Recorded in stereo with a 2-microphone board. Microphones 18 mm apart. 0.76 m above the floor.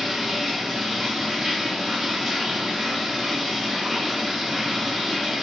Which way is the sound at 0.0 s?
20° right (ahead or behind).